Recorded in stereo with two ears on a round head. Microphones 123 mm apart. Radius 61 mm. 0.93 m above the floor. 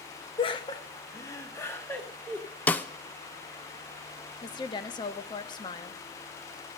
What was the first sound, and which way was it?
Laughter, 40° left (ahead or behind).